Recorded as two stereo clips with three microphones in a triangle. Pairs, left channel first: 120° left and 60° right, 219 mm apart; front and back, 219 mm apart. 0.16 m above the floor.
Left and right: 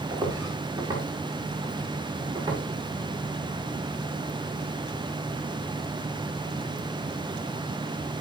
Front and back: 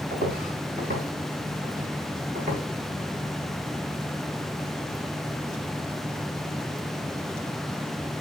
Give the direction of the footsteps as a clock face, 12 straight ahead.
4 o'clock.